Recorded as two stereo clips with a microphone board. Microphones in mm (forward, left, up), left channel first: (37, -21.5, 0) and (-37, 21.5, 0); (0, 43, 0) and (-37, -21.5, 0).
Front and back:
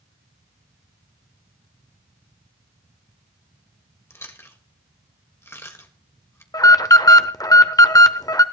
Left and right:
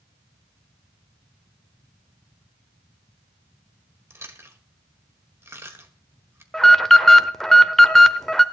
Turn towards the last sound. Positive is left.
turn(degrees=-25)